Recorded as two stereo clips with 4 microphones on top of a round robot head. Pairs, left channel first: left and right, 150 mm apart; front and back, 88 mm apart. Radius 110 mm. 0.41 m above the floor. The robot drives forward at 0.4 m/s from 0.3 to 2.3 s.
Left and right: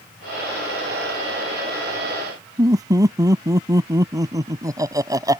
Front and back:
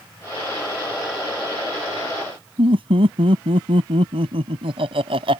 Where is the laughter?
155° right.